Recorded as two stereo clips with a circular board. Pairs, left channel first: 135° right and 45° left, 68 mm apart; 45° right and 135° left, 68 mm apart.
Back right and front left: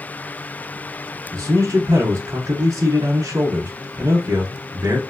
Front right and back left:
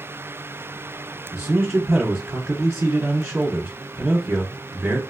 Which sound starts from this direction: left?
A man speaking, at 1.3 s.